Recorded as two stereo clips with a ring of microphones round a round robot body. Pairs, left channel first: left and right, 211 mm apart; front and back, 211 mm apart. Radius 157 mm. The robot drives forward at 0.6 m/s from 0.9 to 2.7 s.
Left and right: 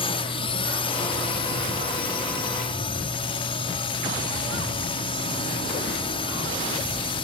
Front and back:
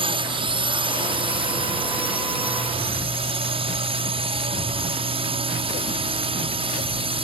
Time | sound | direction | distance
0.0 | a drone | 135° left | ?